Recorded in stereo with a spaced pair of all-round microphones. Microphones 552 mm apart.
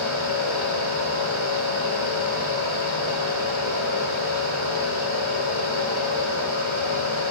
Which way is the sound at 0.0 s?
55° left (ahead or behind).